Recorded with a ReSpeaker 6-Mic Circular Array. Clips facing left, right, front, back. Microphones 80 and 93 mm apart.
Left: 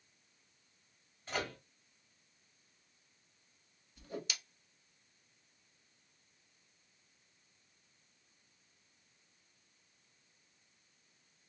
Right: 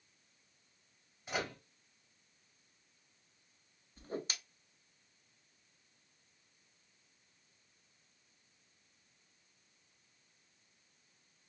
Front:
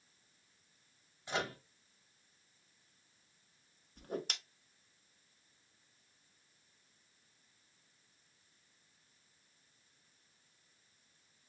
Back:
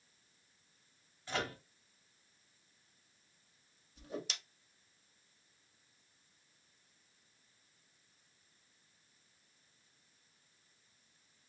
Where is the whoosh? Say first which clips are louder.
Right 2 dB, front 3 dB; 35° right, 0.8 m.